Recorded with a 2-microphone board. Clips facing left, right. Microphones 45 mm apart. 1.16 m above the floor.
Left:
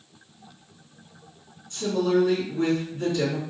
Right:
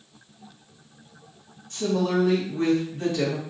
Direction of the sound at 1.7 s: 60° right (ahead or behind).